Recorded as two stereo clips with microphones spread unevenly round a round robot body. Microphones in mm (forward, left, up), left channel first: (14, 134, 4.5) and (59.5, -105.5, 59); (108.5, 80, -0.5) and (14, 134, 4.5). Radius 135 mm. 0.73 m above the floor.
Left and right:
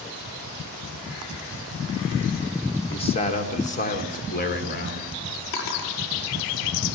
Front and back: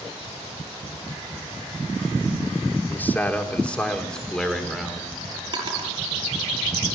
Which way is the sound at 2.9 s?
40° left.